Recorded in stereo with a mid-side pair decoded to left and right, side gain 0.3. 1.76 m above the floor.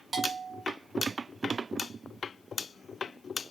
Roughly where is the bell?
Ahead right.